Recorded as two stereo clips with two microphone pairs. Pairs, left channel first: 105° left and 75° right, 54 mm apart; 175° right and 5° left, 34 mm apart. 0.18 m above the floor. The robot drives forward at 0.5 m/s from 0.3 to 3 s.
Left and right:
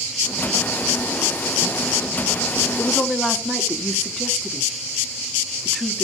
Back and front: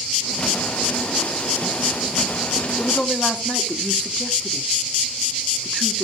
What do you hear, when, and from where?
2.8 s a woman speaking: 170° right, 1.9 m